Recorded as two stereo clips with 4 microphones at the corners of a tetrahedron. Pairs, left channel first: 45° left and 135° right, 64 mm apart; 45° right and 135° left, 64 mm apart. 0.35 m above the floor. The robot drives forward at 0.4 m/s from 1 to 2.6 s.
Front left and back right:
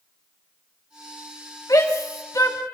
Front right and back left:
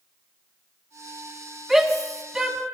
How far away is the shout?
About 3 m.